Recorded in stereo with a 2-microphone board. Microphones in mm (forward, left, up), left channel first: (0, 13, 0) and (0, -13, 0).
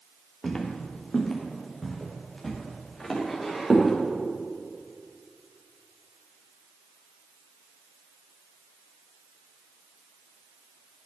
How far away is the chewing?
I don't hear chewing.